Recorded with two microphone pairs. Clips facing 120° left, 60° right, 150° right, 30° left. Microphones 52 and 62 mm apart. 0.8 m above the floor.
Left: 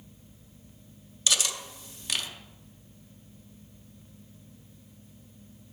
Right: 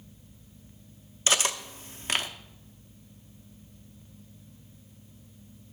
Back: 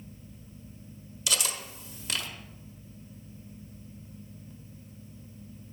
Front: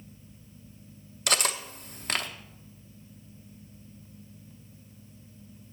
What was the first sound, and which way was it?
Cutlery clinking, 5° right.